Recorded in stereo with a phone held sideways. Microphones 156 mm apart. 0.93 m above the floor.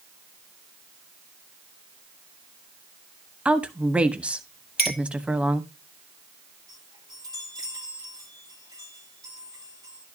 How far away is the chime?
About 9.5 m.